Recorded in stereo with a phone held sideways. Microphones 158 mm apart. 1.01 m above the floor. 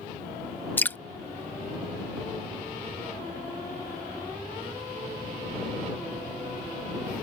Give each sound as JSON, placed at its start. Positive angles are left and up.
{"t": 0.8, "sound": "dripping", "side_deg": 10}